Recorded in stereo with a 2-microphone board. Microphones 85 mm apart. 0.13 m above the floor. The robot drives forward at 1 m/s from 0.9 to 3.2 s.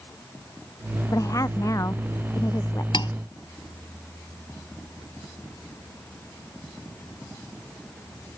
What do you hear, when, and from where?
1.1 s a woman speaking: 45° left (ahead or behind); by 2.8 s 35° left (ahead or behind)
2.9 s cutlery clinking: 65° left (ahead or behind); by 3.1 s 60° left (ahead or behind)